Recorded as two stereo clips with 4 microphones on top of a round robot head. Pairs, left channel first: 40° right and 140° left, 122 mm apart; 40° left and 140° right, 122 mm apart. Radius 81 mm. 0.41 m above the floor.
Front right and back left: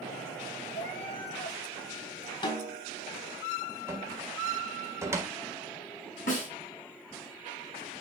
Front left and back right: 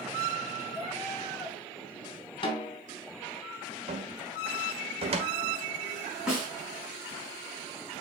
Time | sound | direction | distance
0.7 | a cat meowing | 30° right | 5.5 m
2.4 | a snare drum | 5° right | 2.5 m
3.9 | a cupboard door | 160° right | 1.7 m
6.3 | a snare drum | 55° right | 4 m